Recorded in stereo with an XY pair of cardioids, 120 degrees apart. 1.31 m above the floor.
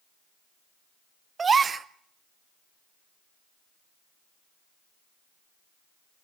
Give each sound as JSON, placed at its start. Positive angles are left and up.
{"t": 1.4, "sound": "a gasp", "azimuth_deg": -30, "distance_m": 0.5}